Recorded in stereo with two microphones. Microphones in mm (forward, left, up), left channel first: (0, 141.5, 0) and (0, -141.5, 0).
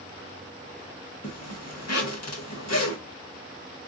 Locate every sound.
1.2 s a zipper: 60° left (ahead or behind), 1.0 m